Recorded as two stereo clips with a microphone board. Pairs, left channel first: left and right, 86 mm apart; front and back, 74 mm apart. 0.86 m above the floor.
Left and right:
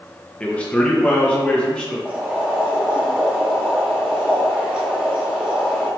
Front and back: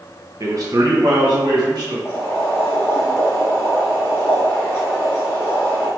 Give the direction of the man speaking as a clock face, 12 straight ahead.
7 o'clock.